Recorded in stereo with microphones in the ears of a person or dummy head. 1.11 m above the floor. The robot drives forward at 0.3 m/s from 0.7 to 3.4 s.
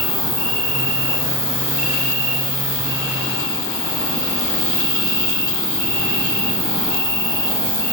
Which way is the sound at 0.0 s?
5° left (ahead or behind).